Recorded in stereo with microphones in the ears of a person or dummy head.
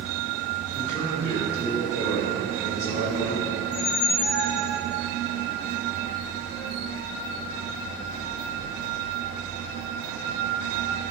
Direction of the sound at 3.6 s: 65° left (ahead or behind).